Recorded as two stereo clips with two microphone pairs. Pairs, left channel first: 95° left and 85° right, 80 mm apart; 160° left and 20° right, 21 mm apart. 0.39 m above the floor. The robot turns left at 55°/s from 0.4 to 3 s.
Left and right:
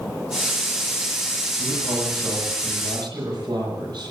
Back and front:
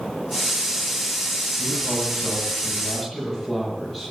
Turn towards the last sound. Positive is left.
turn(degrees=-120)